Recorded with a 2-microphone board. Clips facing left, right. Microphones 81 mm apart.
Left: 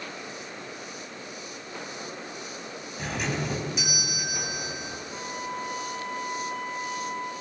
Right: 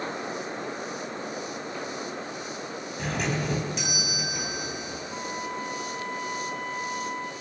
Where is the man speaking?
I don't hear a man speaking.